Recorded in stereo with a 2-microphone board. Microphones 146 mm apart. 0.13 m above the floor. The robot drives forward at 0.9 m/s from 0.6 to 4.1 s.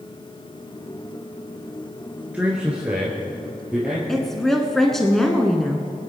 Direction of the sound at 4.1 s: Centre (ahead or behind).